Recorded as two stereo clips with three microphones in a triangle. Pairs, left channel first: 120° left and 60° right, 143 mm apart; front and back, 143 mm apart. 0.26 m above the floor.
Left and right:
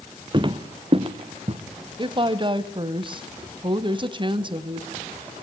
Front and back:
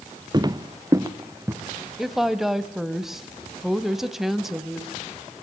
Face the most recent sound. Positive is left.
turn(degrees=-95)